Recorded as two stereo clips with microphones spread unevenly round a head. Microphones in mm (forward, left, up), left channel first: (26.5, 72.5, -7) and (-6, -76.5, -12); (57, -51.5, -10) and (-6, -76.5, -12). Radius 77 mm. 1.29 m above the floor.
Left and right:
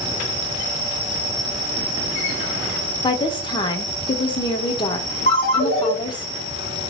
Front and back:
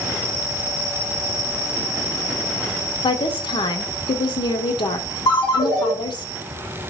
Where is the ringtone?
35° left, 1.3 m.